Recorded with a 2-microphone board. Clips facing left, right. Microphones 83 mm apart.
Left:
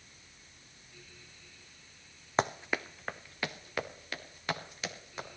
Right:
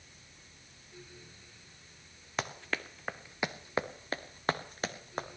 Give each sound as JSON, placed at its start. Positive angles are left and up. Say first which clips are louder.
{"t": 2.4, "sound": "running footsteps", "louder": "left 6 dB", "side_deg": 35, "distance_m": 0.9}